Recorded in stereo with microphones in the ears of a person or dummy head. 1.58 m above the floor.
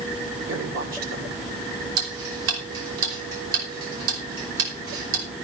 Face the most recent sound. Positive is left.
turn(degrees=-80)